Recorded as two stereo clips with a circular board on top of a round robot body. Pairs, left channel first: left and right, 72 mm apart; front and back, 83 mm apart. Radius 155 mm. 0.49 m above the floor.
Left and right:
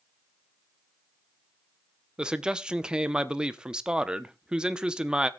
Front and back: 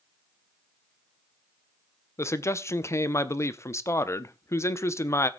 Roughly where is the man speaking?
Ahead.